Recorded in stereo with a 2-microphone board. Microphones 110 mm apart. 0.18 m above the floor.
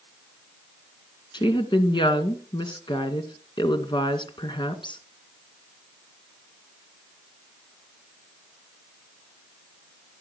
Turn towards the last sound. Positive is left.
turn(degrees=45)  # may be behind; listen again after turning